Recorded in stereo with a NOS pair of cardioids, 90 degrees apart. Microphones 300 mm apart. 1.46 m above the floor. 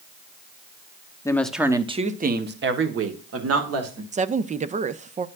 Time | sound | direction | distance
1.2 | a woman speaking | 10° left | 0.9 m
4.1 | a woman speaking | 25° right | 0.5 m